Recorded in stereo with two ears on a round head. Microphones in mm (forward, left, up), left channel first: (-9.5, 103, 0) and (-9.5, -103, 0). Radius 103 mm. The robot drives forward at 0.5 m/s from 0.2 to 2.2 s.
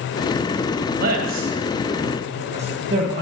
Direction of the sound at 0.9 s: 40° right (ahead or behind).